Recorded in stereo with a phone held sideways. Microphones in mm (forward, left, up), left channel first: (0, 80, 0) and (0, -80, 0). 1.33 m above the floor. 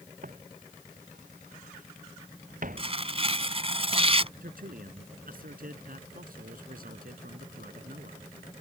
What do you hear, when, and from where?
0.2 s footsteps: 65° right (ahead or behind)
2.8 s tearing paper: 40° right (ahead or behind)
4.4 s a man speaking: 75° right (ahead or behind)